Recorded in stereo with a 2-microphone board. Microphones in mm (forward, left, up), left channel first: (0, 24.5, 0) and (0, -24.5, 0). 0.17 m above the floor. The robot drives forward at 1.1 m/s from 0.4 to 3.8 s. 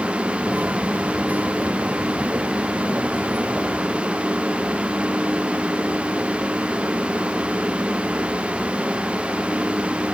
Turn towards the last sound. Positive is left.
No sound to turn to.